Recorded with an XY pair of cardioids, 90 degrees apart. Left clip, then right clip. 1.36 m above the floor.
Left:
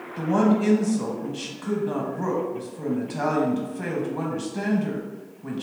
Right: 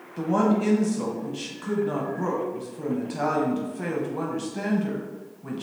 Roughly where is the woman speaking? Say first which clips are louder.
Left 1 dB; ahead.